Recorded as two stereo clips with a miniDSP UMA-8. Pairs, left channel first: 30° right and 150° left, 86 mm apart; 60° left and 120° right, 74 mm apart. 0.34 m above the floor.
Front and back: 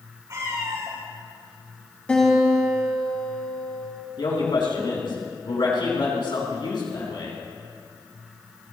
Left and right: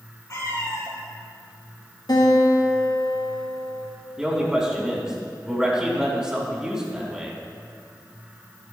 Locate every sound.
0.3 s a cat meowing: 110° left, 5 m
2.1 s a guitar: 45° left, 4 m
4.2 s a man speaking: 40° right, 3.5 m